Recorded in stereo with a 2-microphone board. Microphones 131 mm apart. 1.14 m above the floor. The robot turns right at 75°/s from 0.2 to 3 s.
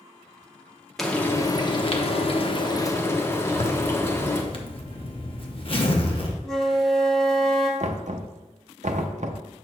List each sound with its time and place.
1.0 s frying: straight ahead, 0.8 m; by 4.4 s 155° left, 0.8 m
3.5 s a zipper: 45° left (ahead or behind), 0.8 m
6.4 s a flute: 5° left (ahead or behind), 0.8 m
7.8 s knocking: 65° right (ahead or behind), 0.5 m